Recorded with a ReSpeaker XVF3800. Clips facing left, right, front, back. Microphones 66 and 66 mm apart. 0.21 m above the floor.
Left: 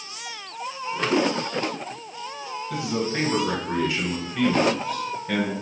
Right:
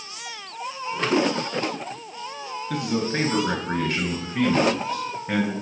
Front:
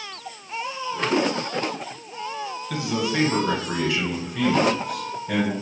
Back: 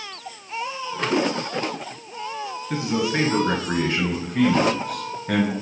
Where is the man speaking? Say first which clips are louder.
Right 1 dB, back 2 dB; 110° right, 2.5 m; by 5.5 s 160° right, 2 m.